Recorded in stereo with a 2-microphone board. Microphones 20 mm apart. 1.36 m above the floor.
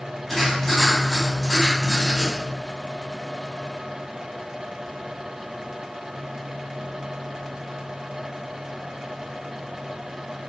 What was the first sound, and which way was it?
Writing, 15° left (ahead or behind).